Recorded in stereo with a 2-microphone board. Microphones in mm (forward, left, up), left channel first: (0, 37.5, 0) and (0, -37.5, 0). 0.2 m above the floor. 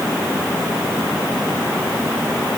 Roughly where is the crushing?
No crushing in this recording.